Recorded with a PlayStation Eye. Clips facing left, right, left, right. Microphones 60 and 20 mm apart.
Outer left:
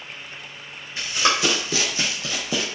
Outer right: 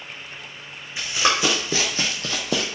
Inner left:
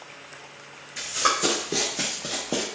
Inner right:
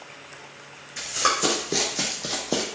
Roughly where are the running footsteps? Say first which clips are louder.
Even, even; centre.